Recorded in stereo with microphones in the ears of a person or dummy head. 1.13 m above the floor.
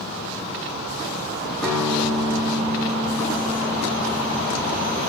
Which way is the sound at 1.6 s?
10° left (ahead or behind).